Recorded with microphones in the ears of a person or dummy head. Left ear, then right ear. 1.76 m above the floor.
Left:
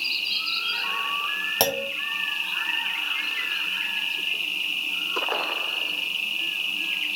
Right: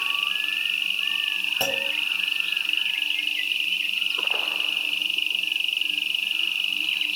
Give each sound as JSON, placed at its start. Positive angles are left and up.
{"t": 0.0, "sound": "an insect", "side_deg": -25, "distance_m": 0.9}
{"t": 1.6, "sound": "a clunk", "side_deg": 30, "distance_m": 1.1}